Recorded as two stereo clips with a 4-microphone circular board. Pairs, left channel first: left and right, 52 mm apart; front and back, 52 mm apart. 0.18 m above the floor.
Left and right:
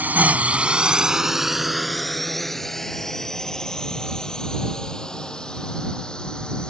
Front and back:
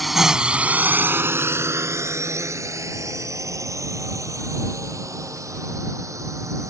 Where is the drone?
90° right; by 6.7 s 165° left.